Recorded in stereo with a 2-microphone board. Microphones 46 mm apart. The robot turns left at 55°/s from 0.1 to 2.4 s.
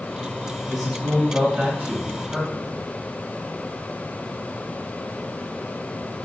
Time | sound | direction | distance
0.7 | a man speaking | 10° right (ahead or behind) | 1.0 m